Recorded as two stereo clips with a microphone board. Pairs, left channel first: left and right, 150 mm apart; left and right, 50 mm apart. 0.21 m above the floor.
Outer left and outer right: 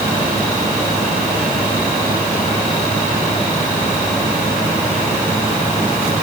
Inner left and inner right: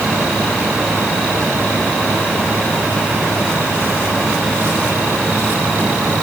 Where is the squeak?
I don't hear a squeak.